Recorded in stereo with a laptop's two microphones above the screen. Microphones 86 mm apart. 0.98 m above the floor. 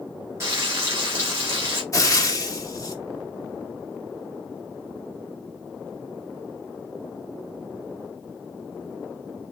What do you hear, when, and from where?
0.4 s frying: 35° right (ahead or behind), 2.5 m
1.9 s frying: 35° left (ahead or behind), 1.1 m